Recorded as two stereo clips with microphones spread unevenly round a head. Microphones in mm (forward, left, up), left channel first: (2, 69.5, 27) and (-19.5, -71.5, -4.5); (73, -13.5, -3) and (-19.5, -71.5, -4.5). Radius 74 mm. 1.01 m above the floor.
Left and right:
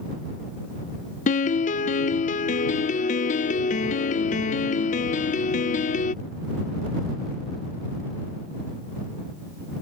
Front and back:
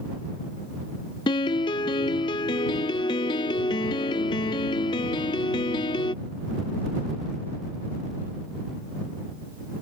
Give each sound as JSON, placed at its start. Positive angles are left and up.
{"t": 1.3, "sound": "a piano", "azimuth_deg": 60}